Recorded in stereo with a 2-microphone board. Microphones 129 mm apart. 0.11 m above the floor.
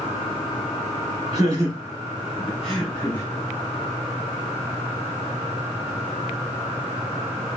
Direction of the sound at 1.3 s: 35° right (ahead or behind).